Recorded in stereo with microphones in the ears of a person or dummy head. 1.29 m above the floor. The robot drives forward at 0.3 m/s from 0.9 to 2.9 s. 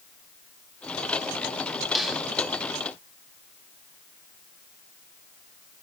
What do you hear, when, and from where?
1.9 s a snare drum: centre (ahead or behind), 2.5 m